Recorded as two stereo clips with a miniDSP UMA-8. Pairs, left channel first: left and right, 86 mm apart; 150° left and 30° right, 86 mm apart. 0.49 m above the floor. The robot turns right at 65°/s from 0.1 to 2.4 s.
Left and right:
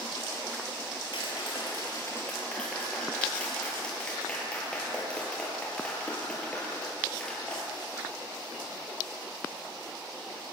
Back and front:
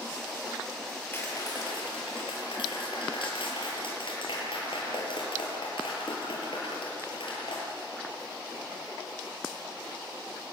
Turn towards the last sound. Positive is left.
turn(degrees=170)